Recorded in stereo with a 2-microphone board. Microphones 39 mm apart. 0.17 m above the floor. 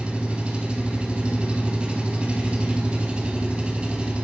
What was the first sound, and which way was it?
An engine running, 30° right (ahead or behind).